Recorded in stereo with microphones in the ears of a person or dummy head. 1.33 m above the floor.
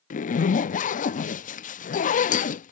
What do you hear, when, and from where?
0.1 s a zipper: 40° left (ahead or behind)